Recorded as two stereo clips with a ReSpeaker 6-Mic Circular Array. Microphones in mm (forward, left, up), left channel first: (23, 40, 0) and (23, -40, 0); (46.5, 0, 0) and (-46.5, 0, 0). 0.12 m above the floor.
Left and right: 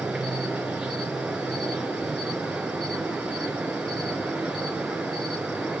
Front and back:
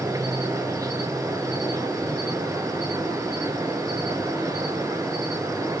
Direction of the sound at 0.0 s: 165° right.